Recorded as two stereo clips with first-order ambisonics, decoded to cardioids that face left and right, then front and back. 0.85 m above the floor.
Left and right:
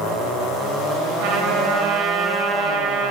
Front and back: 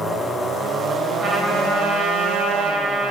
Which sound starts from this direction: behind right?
A trumpet, at 1.2 s.